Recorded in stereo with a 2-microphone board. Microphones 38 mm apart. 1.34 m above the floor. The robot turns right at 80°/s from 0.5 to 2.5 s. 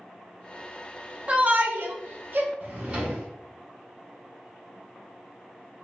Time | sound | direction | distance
1.3 | a shout | 30° right (ahead or behind) | 0.6 m
2.6 | a drawer | 35° right (ahead or behind) | 1.0 m